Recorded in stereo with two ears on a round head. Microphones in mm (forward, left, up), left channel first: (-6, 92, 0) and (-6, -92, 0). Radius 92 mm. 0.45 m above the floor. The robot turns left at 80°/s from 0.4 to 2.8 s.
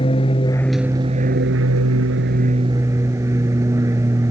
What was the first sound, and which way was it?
An aircraft, 30° left.